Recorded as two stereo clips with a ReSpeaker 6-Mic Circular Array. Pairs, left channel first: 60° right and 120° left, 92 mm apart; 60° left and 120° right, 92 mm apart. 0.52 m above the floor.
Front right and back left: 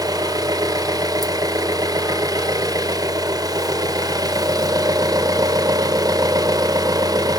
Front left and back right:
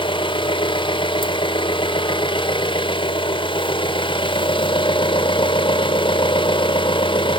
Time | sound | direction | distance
0.0 | an engine running | 75° left | 1.1 m